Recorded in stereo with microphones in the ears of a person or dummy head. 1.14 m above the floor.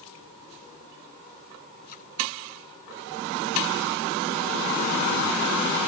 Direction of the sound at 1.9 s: 55° left (ahead or behind).